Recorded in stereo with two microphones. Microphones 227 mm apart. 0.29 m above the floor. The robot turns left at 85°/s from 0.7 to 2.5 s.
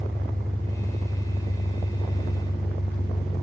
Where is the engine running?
170° left, 3 m; by 3.4 s 15° left, 3 m.